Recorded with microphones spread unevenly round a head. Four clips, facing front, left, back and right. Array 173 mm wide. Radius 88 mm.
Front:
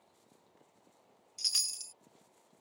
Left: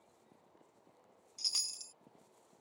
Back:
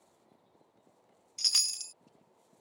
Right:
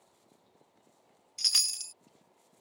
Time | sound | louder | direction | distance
1.4 | a chime | right 10 dB, back 5 dB | 100° right | ?